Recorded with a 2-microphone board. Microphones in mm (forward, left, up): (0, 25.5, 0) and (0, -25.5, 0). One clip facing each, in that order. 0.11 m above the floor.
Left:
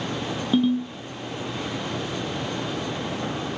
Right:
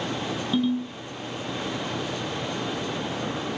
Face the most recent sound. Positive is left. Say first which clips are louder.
# left 4 dB
turn(degrees=20)  # may be behind; listen again after turning